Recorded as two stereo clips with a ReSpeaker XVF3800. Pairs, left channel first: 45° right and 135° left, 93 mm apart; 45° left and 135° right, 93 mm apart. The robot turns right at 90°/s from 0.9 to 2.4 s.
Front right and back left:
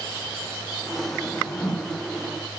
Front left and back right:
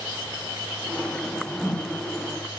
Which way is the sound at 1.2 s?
95° right.